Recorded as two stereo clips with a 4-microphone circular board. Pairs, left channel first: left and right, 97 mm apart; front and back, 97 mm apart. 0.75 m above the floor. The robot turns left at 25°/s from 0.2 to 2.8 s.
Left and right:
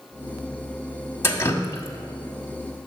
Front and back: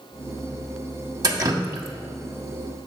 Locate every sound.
1.2 s dripping: 145° left, 0.9 m; by 2.9 s 105° left, 0.9 m